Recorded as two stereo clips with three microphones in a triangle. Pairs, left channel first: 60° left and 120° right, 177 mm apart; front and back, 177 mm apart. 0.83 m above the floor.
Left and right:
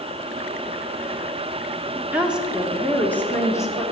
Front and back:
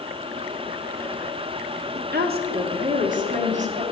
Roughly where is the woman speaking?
Behind.